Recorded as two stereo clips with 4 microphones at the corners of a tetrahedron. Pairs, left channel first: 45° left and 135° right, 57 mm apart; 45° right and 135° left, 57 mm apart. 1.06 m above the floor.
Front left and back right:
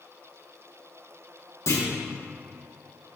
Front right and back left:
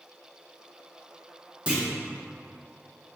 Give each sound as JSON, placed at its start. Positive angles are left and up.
{"t": 1.7, "sound": "a clunk", "azimuth_deg": 65, "distance_m": 1.8}